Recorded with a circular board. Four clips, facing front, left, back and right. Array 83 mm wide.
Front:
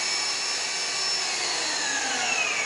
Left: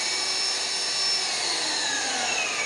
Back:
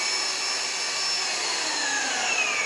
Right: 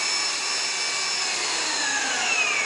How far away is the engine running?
About 1.7 m.